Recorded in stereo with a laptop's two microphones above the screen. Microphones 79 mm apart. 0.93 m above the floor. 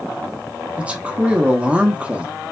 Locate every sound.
0.8 s a man speaking: 15° right (ahead or behind), 1.0 m